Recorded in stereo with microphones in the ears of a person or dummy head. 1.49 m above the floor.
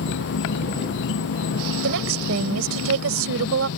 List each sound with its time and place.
0.0 s an insect: 60° left (ahead or behind)
1.8 s a woman speaking: 90° right